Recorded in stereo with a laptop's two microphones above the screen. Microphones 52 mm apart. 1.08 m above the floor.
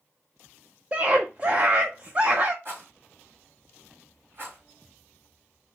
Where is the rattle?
50° right (ahead or behind), 3 m.